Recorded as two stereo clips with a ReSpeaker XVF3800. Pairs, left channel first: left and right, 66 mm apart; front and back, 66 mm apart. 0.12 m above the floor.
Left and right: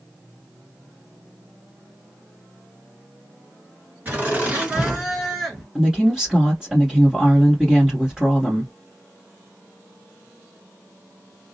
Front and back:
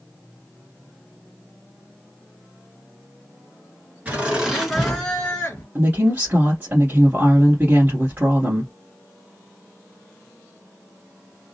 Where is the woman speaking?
160° right, 1.5 m.